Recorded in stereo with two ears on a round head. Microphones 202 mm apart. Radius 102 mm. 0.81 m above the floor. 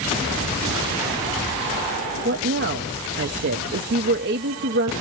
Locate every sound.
2.2 s a woman speaking: 45° right (ahead or behind), 0.7 m